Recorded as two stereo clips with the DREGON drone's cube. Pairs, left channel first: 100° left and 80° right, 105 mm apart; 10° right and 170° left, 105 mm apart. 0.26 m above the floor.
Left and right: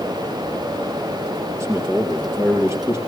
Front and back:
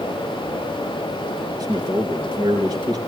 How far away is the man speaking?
About 4 m.